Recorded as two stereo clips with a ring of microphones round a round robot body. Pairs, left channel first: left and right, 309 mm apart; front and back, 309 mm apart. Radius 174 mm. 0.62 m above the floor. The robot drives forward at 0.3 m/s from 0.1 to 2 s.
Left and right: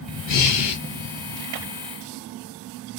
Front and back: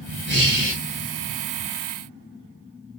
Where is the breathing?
125° left, 1.5 m; by 0.8 s 130° left, 1.6 m.